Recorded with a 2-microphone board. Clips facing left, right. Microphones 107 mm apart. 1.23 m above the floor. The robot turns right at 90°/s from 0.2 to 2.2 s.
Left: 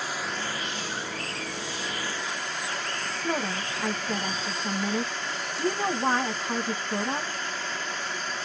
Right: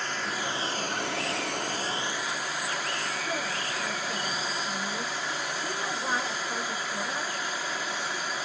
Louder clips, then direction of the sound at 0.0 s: Even; 170° left.